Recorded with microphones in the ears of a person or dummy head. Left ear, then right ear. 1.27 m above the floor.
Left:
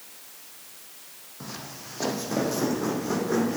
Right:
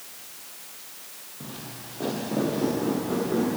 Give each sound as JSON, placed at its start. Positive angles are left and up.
{"t": 1.4, "sound": "footsteps", "side_deg": 65, "distance_m": 3.0}